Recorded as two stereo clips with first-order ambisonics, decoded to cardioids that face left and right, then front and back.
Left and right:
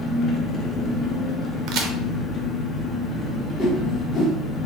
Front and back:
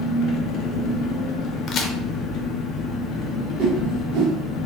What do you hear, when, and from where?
0.0 s an engine running: 30° left, 0.8 m
1.7 s a crack: 55° right, 0.7 m
3.6 s a whoosh: 155° left, 0.9 m